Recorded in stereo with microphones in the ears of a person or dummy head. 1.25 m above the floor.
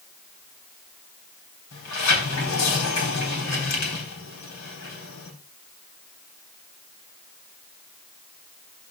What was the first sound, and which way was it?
A sliding door, 85° left.